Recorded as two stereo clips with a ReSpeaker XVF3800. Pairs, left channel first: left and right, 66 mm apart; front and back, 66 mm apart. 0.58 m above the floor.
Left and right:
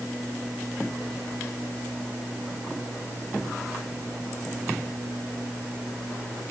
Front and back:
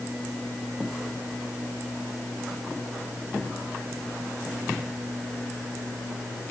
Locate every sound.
Only background noise.